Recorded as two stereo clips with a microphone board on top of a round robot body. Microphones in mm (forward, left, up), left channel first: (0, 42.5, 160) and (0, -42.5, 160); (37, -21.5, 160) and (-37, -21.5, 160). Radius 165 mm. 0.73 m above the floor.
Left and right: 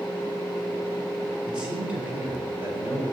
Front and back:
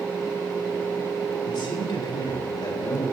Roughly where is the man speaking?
Ahead.